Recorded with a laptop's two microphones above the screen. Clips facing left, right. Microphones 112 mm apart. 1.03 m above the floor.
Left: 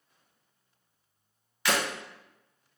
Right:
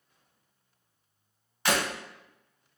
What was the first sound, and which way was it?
Breaking glass, 40° right (ahead or behind).